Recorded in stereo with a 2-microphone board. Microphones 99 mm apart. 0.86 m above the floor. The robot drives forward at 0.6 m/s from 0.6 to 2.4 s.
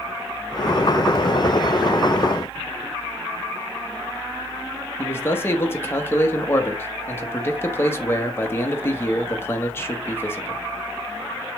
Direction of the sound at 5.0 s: 25° left (ahead or behind).